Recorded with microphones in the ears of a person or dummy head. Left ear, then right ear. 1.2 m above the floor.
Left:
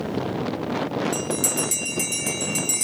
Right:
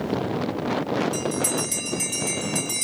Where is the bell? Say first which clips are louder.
Even; 65° left (ahead or behind), 2 m.